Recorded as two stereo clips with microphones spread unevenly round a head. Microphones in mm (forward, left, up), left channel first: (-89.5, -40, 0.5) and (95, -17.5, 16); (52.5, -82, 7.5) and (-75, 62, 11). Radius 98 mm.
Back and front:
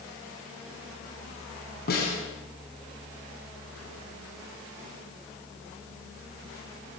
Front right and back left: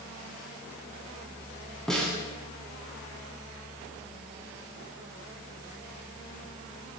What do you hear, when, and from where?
1.9 s a snare drum: 135° right, 8.5 m